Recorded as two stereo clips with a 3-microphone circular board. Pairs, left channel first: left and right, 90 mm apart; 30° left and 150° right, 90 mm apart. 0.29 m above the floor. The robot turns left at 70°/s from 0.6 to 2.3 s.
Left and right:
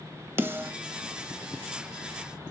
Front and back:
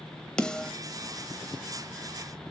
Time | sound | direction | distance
0.4 | a snare drum | 45° right | 0.9 m